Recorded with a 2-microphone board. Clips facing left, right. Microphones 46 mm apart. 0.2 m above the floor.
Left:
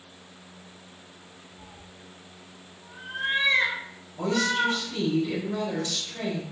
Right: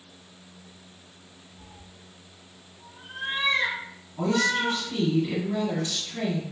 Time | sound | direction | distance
1.6 | a cat meowing | 30° left (ahead or behind) | 0.7 m
4.2 | a woman speaking | 30° right (ahead or behind) | 1.8 m